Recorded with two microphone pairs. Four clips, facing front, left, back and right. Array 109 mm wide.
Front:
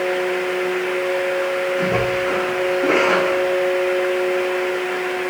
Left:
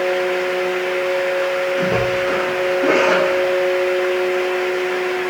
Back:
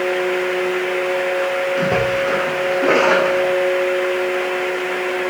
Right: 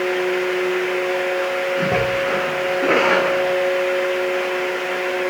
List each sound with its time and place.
1.8 s a splash: 165° right, 5 m